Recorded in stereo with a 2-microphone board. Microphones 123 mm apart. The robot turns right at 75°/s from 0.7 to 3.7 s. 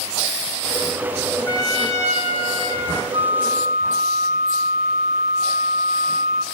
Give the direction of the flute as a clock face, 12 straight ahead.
5 o'clock.